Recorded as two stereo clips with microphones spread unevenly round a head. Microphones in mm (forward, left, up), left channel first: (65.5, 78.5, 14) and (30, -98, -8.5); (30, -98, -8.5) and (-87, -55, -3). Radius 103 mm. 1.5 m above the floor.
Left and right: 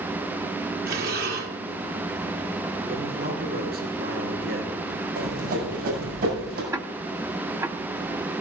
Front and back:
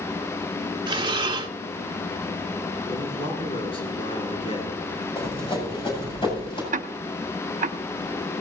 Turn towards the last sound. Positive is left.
turn(degrees=180)